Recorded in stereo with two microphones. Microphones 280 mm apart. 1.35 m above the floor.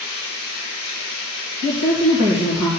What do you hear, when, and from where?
0.0 s running water: 65° right (ahead or behind), 5 m
1.6 s a woman speaking: 75° right (ahead or behind), 2.0 m